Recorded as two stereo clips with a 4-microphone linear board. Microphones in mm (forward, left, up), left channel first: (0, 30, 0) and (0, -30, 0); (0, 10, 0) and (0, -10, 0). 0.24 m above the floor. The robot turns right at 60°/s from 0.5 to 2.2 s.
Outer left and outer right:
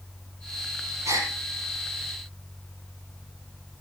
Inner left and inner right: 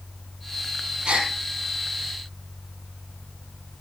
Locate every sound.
1.1 s a gasp: 55° right (ahead or behind), 4 m; by 1.3 s 70° right (ahead or behind), 4 m